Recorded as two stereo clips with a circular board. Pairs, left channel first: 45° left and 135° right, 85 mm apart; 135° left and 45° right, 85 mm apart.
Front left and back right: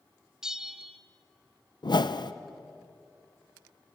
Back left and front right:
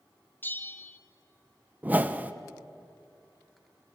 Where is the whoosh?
25° left, 0.8 m.